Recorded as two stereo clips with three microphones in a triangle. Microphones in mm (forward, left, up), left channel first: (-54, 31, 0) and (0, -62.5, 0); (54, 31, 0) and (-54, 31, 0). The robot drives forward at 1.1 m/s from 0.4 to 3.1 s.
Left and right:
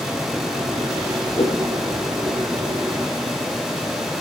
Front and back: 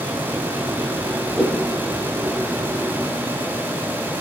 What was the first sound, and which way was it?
A whoosh, 90° left.